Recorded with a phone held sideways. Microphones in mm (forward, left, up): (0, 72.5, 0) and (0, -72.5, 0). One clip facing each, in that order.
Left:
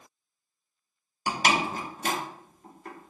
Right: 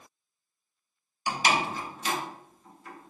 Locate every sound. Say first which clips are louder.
1.3 s a door slam: left 1 dB; 50° left (ahead or behind), 0.7 m